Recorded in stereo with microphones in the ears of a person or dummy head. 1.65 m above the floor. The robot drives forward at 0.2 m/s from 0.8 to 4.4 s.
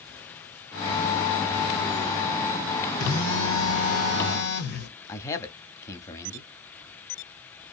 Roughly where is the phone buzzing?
Left.